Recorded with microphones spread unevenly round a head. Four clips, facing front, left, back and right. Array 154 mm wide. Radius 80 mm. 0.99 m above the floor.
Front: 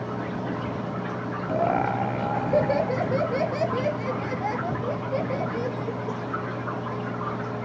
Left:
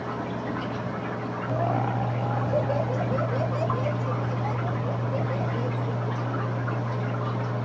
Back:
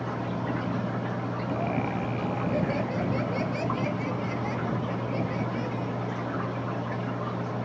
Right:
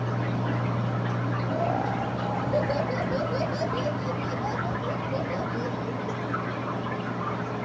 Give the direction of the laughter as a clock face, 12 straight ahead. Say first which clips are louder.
Left 1 dB, front 7 dB; 12 o'clock.